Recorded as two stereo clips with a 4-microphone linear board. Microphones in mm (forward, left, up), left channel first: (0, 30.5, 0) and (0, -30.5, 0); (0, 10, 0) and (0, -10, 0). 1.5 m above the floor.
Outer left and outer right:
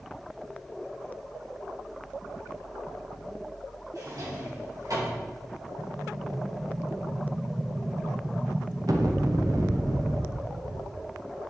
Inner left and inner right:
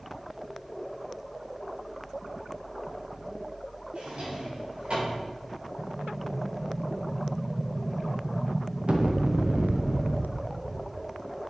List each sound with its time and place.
4.0 s a drawer: 70° right (ahead or behind), 4 m
5.8 s an explosion: 75° right (ahead or behind), 0.9 m